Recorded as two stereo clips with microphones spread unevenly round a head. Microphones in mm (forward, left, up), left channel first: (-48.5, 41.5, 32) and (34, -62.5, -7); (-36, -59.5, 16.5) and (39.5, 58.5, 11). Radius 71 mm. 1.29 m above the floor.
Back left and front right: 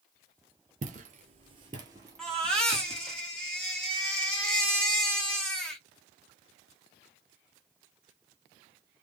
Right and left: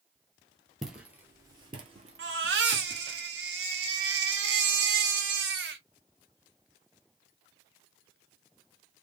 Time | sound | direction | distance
0.8 | footsteps | 35° right | 1.4 m
2.2 | a baby crying | 50° left | 1.3 m